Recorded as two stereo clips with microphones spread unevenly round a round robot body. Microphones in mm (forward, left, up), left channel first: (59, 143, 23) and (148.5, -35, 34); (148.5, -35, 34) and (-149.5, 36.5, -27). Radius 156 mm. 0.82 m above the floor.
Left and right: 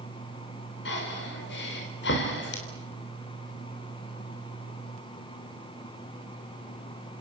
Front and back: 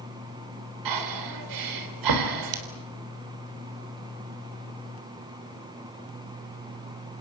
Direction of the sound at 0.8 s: 160° left.